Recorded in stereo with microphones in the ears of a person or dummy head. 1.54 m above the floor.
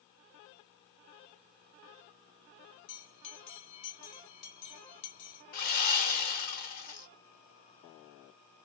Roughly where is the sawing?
Left.